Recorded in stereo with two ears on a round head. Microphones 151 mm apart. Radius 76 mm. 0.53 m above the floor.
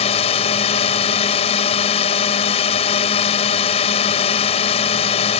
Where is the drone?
35° left (ahead or behind).